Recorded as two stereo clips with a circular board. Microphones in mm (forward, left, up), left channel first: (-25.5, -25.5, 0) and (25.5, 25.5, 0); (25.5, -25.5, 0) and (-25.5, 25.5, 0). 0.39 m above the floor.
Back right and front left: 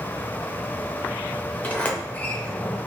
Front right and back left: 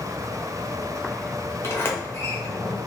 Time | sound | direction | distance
1.6 | a sliding door | 75° right | 0.8 m